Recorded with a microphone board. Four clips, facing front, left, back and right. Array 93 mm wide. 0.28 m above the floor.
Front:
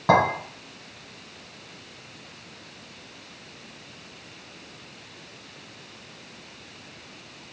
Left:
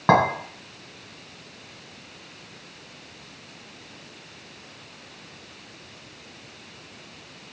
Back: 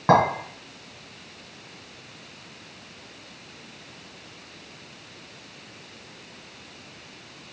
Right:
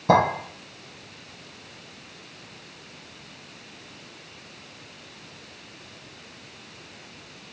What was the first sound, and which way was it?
A clink, 105° left.